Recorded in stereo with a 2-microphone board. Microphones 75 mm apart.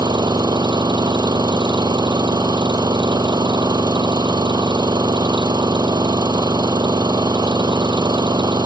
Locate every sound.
0.0 s an engine running: 65° right (ahead or behind)